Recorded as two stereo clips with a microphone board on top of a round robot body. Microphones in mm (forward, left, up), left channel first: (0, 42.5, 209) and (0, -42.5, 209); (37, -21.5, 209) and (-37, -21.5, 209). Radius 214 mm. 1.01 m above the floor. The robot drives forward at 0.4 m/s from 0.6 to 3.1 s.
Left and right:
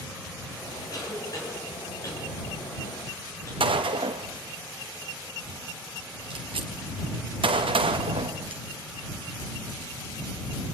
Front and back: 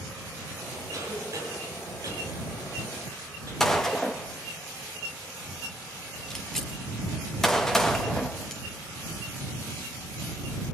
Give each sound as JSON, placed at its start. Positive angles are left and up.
{"t": 0.9, "sound": "a cough", "azimuth_deg": 135, "distance_m": 6.5}
{"t": 3.6, "sound": "a gunshot", "azimuth_deg": -85, "distance_m": 0.6}